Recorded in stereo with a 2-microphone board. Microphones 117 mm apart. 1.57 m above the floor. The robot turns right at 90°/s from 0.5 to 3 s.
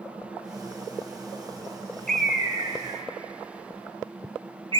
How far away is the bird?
About 0.7 m.